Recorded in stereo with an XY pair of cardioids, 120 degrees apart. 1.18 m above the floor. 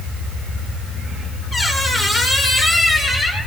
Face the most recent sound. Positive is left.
turn(degrees=25)